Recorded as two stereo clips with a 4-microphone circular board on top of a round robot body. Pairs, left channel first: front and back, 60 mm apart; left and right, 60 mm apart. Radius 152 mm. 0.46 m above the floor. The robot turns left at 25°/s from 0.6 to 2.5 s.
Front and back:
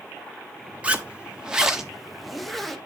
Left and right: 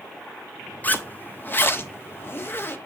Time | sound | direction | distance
0.8 | a zipper | 130° left | 1.5 m